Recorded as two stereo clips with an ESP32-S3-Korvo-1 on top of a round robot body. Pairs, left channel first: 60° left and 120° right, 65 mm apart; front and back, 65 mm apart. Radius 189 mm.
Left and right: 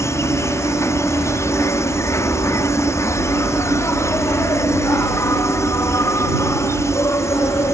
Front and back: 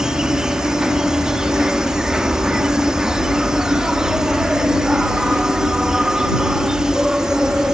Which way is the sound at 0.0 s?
100° left.